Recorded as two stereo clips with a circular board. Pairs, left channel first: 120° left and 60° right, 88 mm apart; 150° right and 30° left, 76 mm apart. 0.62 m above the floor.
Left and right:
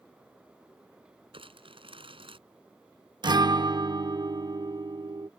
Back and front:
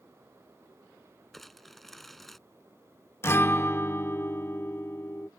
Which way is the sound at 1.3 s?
60° right.